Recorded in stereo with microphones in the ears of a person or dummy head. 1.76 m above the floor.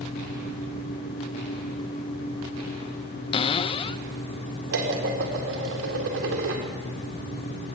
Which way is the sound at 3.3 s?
35° left (ahead or behind).